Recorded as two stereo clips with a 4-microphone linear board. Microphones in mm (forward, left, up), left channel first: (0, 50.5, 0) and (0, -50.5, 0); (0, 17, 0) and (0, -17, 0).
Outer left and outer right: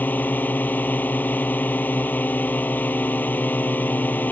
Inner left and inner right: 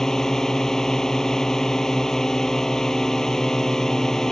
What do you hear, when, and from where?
0.0 s a drone: 15° left (ahead or behind)